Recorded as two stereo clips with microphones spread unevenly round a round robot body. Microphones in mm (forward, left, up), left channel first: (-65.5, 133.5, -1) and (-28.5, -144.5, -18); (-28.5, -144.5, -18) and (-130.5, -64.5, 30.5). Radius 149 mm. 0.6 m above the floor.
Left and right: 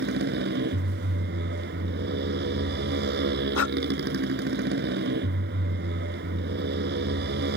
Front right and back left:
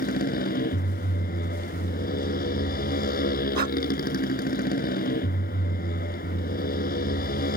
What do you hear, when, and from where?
0.0 s a motorcycle: 25° right
3.5 s breathing: 115° left